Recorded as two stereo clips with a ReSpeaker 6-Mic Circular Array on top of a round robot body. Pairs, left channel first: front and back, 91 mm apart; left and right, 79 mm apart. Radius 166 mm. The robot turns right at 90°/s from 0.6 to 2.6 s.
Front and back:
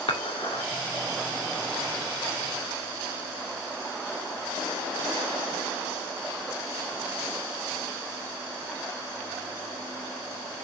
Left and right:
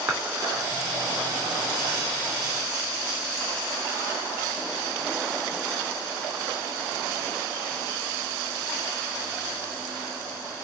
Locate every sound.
0.1 s dishes clattering: 20° right, 2.5 m